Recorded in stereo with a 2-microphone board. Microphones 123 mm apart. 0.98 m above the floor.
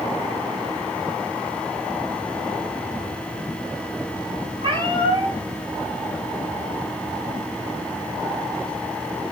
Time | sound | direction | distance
4.6 | a cat meowing | 45° right (ahead or behind) | 6 m